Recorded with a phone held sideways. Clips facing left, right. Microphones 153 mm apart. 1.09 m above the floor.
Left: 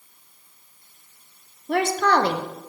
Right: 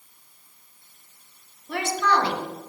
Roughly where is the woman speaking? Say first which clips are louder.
Left 4 dB; left.